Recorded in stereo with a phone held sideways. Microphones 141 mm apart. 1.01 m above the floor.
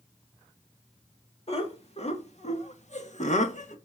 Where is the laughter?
45° left (ahead or behind), 2.5 m; by 3.8 s 60° left (ahead or behind), 1.5 m.